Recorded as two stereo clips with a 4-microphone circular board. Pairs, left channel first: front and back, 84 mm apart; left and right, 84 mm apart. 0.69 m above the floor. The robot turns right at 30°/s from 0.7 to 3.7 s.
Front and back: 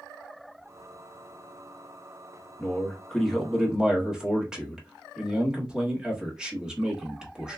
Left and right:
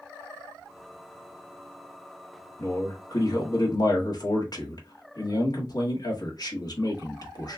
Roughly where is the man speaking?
Ahead left.